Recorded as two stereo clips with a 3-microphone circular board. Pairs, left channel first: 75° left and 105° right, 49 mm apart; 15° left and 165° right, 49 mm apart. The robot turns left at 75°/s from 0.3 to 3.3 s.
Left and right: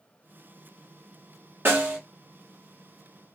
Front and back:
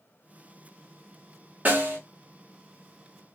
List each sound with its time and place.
1.6 s a snare drum: 125° right, 1.1 m; by 2.0 s 150° right, 1.1 m